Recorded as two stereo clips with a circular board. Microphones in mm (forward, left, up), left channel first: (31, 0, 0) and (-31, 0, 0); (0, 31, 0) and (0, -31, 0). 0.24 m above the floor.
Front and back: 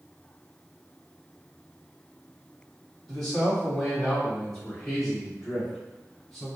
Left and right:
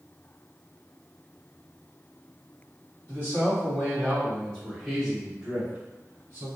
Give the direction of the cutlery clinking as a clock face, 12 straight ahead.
I don't hear cutlery clinking.